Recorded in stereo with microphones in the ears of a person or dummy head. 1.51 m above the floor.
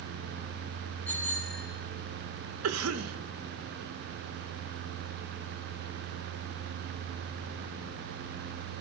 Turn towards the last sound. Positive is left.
turn(degrees=-85)